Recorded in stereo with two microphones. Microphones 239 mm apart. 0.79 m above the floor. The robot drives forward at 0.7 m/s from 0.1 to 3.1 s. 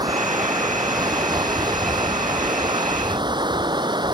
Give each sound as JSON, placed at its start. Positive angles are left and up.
{"t": 0.0, "sound": "running water", "side_deg": -15}